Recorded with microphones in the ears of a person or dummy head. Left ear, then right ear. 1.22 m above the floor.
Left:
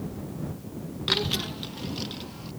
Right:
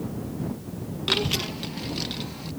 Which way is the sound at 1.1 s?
10° left (ahead or behind).